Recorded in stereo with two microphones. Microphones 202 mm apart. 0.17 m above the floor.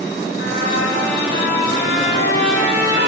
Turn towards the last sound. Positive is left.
turn(degrees=85)